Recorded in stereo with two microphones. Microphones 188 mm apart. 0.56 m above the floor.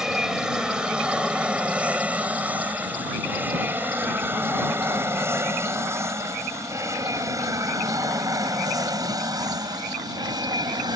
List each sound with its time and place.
0.0 s an aircraft: 5° right (ahead or behind); by 11.0 s 20° right (ahead or behind)